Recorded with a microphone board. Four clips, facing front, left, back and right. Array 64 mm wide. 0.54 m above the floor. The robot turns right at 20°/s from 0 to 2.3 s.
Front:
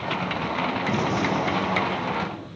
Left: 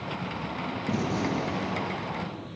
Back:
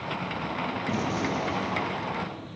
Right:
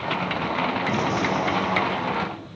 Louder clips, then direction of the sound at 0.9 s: Right 5 dB, front 3 dB; 40° right.